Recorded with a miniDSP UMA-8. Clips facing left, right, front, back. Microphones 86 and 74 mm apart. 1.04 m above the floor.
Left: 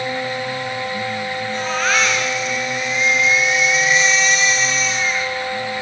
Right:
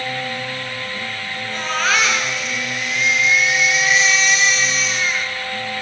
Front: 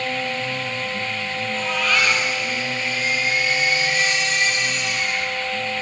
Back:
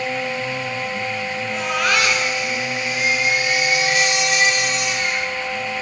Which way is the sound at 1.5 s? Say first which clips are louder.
Right 1 dB, back 2 dB; straight behind.